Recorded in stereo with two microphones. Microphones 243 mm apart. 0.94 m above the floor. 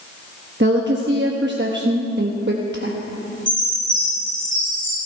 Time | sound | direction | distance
0.6 | a woman speaking | 45° right (ahead or behind) | 1.1 m
3.5 | a chime | 20° left (ahead or behind) | 7 m